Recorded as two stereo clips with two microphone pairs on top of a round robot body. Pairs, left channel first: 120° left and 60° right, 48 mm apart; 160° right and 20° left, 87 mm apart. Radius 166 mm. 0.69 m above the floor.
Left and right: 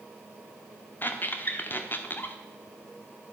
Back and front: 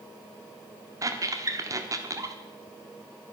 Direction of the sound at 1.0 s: 70° left.